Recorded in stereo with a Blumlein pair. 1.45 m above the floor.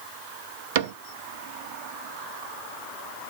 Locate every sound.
0.8 s a cupboard door: 50° right, 0.5 m